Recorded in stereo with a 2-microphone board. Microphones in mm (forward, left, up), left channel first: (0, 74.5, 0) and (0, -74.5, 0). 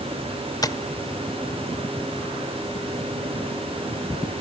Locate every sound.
0.6 s tapping: 25° left (ahead or behind), 0.8 m